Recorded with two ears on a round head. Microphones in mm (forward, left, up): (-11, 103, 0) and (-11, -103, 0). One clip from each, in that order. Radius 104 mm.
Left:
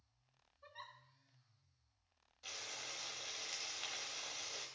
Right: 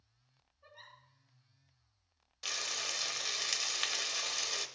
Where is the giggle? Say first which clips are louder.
Left 1 dB; 55° left (ahead or behind), 2.5 m.